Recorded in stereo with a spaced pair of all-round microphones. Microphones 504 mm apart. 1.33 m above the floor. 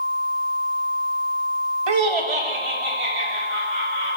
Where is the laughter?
55° right (ahead or behind), 0.6 m; by 4.2 s 70° right (ahead or behind), 3.5 m.